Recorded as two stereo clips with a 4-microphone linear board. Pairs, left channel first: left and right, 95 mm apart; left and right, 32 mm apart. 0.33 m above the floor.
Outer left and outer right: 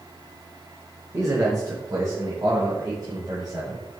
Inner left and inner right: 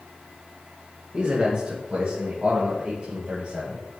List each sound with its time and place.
1.1 s a man speaking: 35° right (ahead or behind), 1.7 m; by 4.0 s 40° right (ahead or behind), 4 m